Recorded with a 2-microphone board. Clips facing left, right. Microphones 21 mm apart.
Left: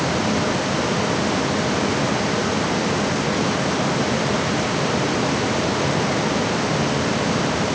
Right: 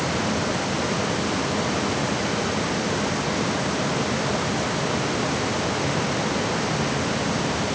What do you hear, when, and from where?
Only background noise.